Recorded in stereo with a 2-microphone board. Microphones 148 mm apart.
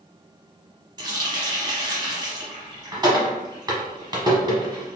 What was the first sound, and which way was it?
A running tap, 30° right (ahead or behind).